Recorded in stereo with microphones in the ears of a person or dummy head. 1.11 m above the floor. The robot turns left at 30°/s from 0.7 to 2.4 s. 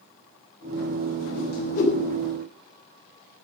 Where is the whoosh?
55° left (ahead or behind), 2.5 m; by 2.0 s 35° left (ahead or behind), 2.5 m.